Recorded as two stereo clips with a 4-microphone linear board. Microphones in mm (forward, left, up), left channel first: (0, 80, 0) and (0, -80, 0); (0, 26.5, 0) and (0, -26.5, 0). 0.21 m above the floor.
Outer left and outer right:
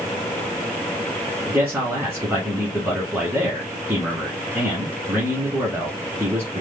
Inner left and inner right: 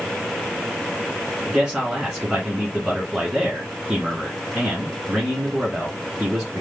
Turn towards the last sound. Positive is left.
turn(degrees=-15)  # may be behind; listen again after turning